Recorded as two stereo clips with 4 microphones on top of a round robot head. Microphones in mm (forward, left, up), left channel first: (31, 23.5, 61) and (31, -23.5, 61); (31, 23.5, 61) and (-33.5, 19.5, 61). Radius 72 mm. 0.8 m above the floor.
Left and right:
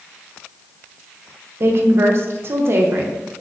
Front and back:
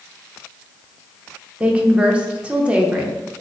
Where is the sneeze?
No sneeze in this recording.